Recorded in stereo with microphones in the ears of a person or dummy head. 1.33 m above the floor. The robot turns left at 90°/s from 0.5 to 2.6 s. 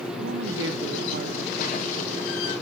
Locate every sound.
0.2 s a woman speaking: 70° right, 1.5 m; by 2.2 s 135° left, 1.5 m